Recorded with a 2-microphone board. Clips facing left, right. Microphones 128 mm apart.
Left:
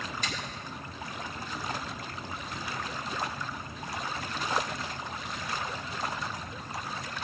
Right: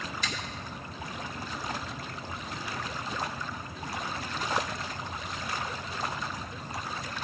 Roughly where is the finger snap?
Left.